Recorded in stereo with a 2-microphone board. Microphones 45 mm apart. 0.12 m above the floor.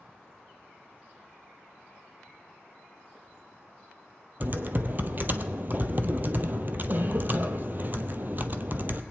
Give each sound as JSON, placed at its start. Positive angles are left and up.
{"t": 4.4, "sound": "typing on a keyboard", "side_deg": -45, "distance_m": 0.6}